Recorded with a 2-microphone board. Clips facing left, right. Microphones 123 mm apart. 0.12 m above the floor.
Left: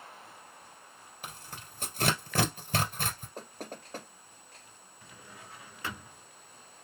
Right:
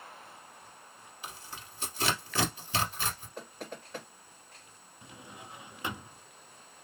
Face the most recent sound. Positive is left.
turn(degrees=-20)  # may be behind; listen again after turning